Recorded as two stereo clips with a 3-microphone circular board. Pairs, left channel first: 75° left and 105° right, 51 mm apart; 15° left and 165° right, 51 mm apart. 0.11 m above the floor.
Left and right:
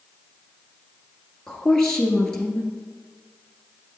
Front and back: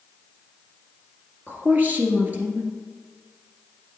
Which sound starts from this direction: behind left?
A woman speaking, at 1.5 s.